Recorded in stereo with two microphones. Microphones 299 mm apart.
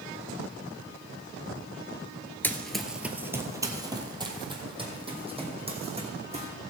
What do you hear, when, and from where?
2.4 s running footsteps: 5° left (ahead or behind), 0.8 m; by 6.5 s 20° right (ahead or behind), 3 m